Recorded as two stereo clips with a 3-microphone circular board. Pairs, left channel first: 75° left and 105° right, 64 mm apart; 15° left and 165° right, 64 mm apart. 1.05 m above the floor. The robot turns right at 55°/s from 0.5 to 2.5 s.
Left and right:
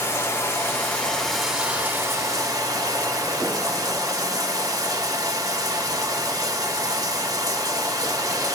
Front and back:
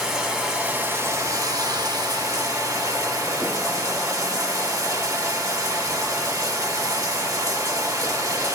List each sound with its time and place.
0.0 s running water: 120° left, 1.3 m; by 8.6 s 130° right, 1.3 m